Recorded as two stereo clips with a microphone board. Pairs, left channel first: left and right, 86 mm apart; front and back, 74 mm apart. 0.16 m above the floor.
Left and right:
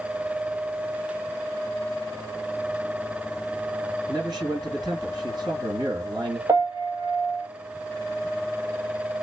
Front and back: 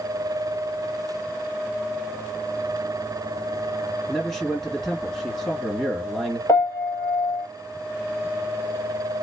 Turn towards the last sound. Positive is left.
turn(degrees=-45)